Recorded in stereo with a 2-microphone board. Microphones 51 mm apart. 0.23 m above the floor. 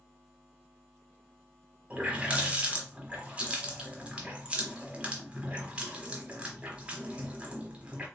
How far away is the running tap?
About 0.9 m.